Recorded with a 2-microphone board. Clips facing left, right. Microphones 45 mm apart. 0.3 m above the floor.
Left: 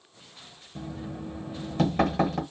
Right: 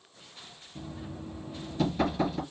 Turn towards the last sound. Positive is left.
turn(degrees=55)  # may be behind; listen again after turning